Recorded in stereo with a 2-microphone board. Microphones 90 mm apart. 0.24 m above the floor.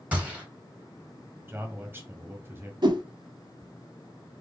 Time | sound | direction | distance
0.1 | a gunshot | 15° right (ahead or behind) | 3 m
1.5 | a man speaking | 25° right (ahead or behind) | 1.0 m
2.8 | a whoosh | 55° right (ahead or behind) | 0.6 m